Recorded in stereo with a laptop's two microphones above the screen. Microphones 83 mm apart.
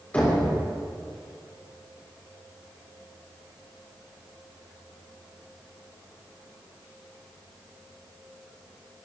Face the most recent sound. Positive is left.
turn(degrees=20)  # may be behind; listen again after turning